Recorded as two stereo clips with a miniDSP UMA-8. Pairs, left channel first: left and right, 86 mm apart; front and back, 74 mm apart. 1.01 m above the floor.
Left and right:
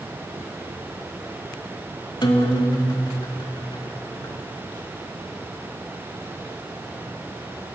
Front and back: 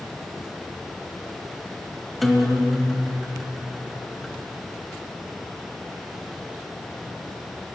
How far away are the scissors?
I don't hear scissors.